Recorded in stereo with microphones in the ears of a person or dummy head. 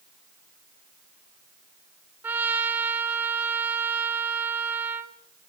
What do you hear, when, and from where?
2.2 s a trumpet: 15° right (ahead or behind), 2 m